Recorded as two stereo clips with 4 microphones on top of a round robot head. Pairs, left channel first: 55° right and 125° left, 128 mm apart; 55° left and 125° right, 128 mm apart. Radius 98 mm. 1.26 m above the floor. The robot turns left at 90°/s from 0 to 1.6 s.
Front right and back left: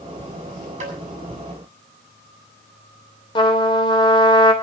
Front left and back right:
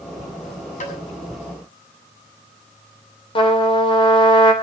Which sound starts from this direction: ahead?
A trumpet, at 3.4 s.